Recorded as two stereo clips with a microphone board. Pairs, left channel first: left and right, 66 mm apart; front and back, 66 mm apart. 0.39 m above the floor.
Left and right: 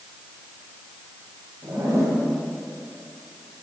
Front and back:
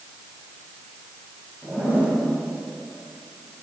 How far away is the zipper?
About 3 m.